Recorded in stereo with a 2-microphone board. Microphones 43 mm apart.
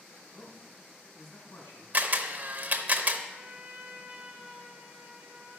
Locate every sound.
0.3 s a man speaking: 65° left (ahead or behind), 2.5 m
1.9 s a camera shutter: 40° right (ahead or behind), 0.8 m
3.3 s a trumpet: 20° right (ahead or behind), 1.3 m